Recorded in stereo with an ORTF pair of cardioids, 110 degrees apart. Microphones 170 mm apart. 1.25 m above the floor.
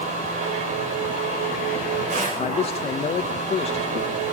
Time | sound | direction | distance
0.0 | a machine running | 45° right | 5.5 m
2.4 | a man speaking | 40° left | 1.2 m